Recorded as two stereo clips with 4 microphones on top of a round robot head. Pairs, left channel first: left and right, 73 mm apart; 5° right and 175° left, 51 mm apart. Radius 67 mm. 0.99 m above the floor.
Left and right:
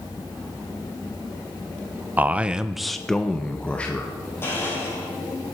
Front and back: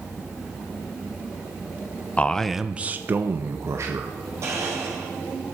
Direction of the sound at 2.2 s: 45° right.